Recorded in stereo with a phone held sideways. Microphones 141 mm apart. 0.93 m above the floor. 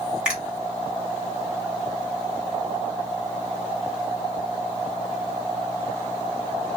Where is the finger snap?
10° right (ahead or behind), 1.4 m.